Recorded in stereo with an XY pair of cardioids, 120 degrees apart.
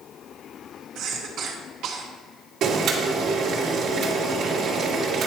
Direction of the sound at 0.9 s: 70° right.